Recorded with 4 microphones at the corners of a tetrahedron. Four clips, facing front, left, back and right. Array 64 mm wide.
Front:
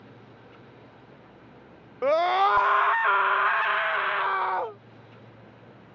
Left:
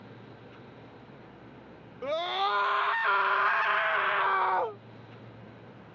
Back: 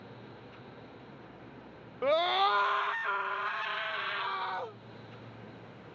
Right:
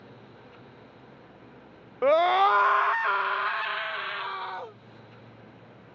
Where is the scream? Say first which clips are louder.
Right 9 dB, front 6 dB; 65° right; by 4.8 s 50° left.